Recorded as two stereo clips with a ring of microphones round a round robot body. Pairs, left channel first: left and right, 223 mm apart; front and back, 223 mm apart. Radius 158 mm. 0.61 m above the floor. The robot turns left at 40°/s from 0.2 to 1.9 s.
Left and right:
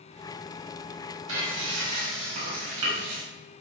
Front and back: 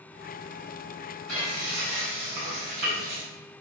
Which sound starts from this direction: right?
Frying, at 1.3 s.